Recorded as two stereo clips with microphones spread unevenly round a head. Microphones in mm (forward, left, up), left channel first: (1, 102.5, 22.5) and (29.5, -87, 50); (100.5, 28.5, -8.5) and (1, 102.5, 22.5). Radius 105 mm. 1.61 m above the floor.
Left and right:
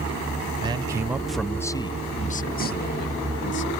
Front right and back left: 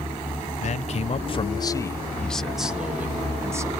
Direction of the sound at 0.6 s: 15° right.